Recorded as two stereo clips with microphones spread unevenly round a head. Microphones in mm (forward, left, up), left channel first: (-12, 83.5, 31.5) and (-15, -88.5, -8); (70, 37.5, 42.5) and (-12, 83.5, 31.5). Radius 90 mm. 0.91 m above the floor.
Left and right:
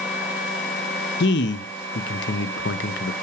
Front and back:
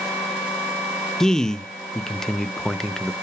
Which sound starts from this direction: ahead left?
A man speaking, at 1.2 s.